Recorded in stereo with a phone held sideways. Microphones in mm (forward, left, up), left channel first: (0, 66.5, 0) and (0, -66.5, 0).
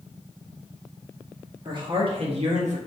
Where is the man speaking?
35° right (ahead or behind), 1.1 m; by 2.8 s 65° right (ahead or behind), 0.6 m.